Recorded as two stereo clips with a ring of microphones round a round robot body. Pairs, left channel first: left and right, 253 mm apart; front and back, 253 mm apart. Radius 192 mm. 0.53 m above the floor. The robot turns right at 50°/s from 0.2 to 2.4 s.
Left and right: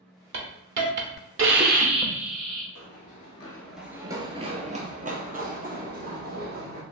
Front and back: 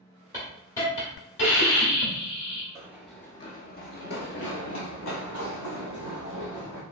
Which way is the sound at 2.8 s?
110° left.